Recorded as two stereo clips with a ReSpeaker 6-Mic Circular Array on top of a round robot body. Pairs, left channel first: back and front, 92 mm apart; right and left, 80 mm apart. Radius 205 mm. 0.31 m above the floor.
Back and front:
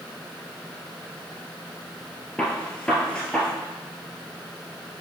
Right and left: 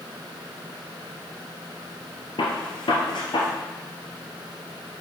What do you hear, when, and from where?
2.4 s a gunshot: 100° right, 1.7 m